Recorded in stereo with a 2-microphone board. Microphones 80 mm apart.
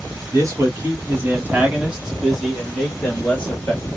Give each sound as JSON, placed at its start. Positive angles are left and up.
{"t": 0.3, "sound": "a man speaking", "side_deg": -40, "distance_m": 1.3}